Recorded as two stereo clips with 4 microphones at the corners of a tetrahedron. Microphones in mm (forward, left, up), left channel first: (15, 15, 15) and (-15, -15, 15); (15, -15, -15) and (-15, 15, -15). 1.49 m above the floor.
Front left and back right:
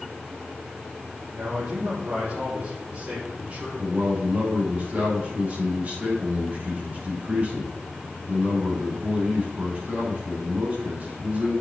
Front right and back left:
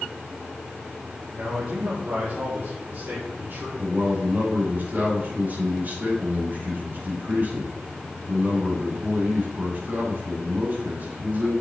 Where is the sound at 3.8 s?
175° left, 6.5 m.